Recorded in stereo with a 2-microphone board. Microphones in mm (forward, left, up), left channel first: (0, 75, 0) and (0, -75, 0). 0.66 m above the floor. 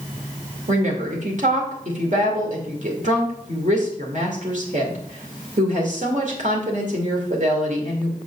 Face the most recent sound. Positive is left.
turn(degrees=-60)  # may be behind; listen again after turning